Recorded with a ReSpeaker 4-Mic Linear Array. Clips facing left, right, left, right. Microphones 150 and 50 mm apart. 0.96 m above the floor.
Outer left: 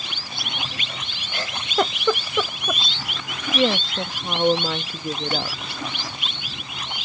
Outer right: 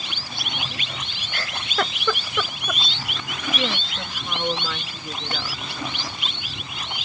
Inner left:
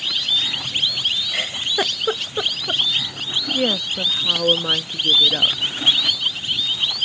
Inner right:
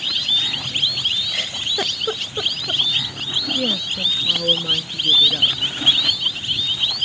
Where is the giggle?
20° left (ahead or behind).